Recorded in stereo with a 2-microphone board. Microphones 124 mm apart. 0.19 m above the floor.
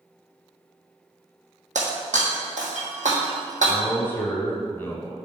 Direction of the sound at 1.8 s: 85° right.